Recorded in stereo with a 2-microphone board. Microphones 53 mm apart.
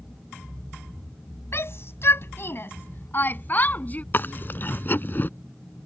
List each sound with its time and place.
1.5 s a shout: 50° left (ahead or behind); by 4.0 s 30° left (ahead or behind)
4.1 s chewing: 40° left (ahead or behind)